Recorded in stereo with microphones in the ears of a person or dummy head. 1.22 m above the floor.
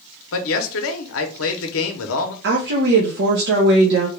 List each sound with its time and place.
0.3 s a man speaking: 65° left (ahead or behind), 0.8 m
2.4 s a woman speaking: 60° right (ahead or behind), 0.9 m